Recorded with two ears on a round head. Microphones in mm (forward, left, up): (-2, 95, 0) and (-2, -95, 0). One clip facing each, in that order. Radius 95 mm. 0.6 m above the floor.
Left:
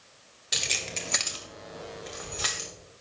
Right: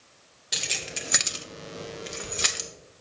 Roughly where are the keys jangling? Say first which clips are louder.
Even; centre.